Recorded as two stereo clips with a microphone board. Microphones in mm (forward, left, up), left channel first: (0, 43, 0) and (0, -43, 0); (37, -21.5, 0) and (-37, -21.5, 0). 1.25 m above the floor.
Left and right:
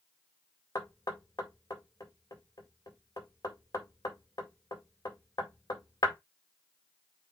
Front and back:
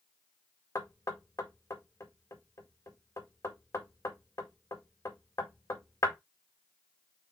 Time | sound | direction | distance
0.8 | knocking | 45° left | 2.0 m